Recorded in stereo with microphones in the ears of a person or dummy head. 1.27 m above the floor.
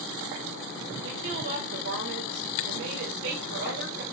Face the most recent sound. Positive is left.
turn(degrees=-60)  # may be behind; listen again after turning